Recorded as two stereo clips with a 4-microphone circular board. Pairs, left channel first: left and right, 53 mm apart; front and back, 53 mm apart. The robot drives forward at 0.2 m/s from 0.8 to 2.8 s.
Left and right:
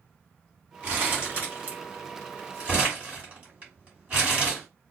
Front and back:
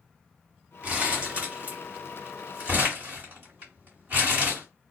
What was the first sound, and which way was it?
Crumpling, 130° right.